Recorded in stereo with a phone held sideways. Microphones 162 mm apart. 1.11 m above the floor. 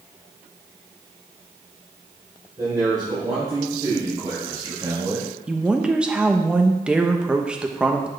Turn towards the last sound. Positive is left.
turn(degrees=-5)  # may be behind; listen again after turning